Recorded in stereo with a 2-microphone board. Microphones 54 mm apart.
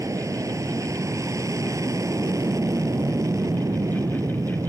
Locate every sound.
0.0 s an aircraft: 70° right (ahead or behind); by 4.7 s 75° right (ahead or behind)